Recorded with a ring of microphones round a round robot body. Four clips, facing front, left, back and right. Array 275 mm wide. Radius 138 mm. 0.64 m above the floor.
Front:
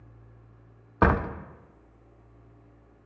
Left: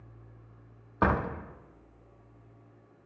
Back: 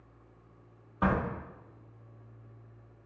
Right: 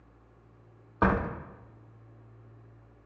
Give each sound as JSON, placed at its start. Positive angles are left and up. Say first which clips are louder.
{"t": 1.0, "sound": "a door slam", "louder": "right 1 dB, front 6 dB", "azimuth_deg": 0, "distance_m": 0.6}